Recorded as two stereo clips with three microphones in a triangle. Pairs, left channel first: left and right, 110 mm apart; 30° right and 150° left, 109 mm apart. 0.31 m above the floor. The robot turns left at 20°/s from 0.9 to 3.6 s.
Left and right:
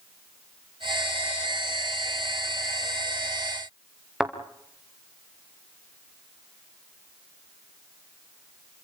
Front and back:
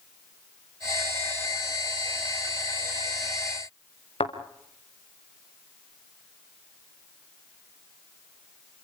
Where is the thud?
5° right, 4 m.